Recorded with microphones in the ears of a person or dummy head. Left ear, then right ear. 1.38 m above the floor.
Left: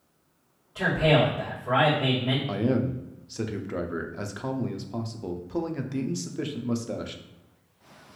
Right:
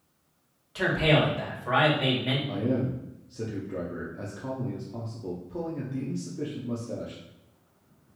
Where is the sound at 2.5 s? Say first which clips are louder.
Left 2 dB; 50° left (ahead or behind), 0.6 m.